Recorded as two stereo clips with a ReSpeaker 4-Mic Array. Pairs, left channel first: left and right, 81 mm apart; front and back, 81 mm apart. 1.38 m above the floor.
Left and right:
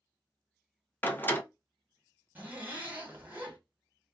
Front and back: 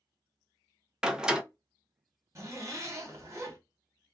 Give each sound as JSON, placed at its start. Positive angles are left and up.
{"t": 1.0, "sound": "a door slam", "azimuth_deg": 110, "distance_m": 0.6}
{"t": 2.4, "sound": "a zipper", "azimuth_deg": -150, "distance_m": 1.3}